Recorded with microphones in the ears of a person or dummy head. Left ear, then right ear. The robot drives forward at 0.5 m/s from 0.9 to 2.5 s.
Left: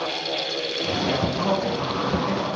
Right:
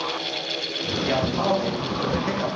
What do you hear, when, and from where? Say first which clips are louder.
1.0 s a man speaking: right 3 dB; 40° right (ahead or behind), 1.5 m; by 2.5 s 65° right (ahead or behind), 1.0 m